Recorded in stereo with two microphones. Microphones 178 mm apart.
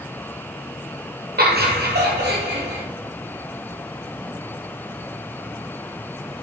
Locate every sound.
1.4 s laughter: 60° right (ahead or behind), 1.3 m; by 2.8 s 70° right (ahead or behind), 2 m